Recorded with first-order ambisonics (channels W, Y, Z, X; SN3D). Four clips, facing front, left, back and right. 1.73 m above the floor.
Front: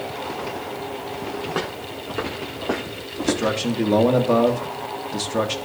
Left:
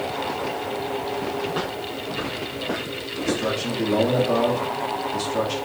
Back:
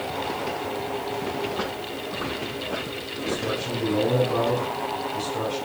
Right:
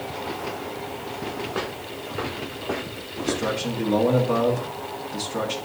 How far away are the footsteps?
About 5 m.